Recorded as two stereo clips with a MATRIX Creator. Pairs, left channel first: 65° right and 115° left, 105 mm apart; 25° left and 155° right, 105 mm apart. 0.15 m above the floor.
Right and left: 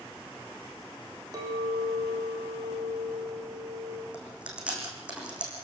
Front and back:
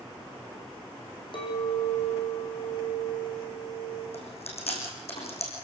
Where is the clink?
60° left, 5.5 m.